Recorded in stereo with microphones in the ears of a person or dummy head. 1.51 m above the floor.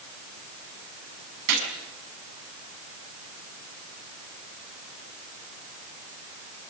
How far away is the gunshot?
About 6 m.